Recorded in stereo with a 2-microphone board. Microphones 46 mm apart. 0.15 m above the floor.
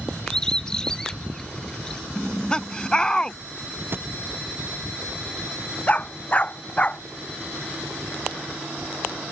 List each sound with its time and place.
0.3 s a bird: 15° left (ahead or behind)
2.1 s laughter: 15° left (ahead or behind)
3.9 s a thud: 50° right (ahead or behind)
5.9 s a dog barking: 30° left (ahead or behind)